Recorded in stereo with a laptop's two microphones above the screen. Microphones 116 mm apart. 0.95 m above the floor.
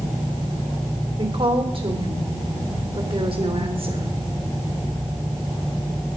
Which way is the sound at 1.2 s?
55° right (ahead or behind).